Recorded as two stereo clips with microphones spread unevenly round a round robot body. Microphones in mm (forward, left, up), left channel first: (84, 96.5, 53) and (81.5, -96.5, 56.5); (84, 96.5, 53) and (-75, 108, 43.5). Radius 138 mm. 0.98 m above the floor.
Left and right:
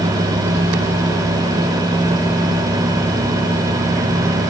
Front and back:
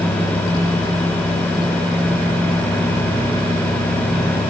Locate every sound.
Only background noise.